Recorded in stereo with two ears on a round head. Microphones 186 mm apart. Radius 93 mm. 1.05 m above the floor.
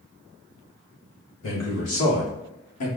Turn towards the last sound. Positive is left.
turn(degrees=85)